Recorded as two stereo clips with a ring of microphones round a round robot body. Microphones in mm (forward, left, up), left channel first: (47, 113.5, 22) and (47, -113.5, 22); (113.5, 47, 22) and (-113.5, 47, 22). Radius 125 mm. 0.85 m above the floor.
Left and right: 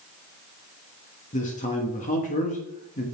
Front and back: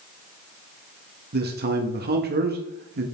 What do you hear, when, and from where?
1.3 s a man speaking: 145° left, 1.4 m